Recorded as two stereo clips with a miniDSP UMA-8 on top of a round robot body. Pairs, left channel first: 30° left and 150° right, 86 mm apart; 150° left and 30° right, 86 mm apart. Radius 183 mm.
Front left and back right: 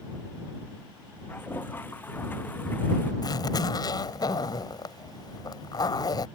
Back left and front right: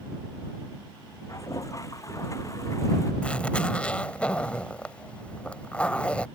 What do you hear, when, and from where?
1.3 s a toilet flushing: 100° left
3.2 s a zipper: 75° left